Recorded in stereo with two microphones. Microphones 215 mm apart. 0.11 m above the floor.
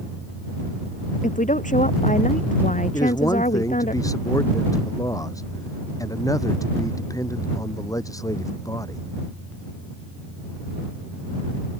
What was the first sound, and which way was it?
A woman speaking, 35° left (ahead or behind).